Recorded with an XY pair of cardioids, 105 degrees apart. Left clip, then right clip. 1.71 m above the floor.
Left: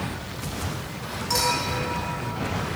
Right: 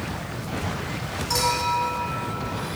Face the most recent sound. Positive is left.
turn(degrees=0)